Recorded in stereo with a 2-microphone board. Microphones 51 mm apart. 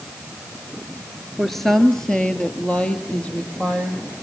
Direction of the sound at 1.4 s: Centre (ahead or behind).